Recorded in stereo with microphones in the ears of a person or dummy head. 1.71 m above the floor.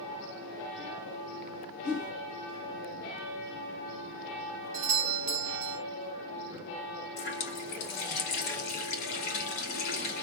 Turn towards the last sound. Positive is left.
turn(degrees=50)  # may be behind; listen again after turning